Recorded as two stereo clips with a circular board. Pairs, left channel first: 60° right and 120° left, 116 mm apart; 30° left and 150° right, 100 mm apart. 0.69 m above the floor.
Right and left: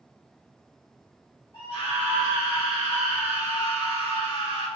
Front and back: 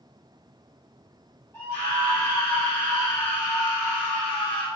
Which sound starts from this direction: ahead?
A scream, at 1.5 s.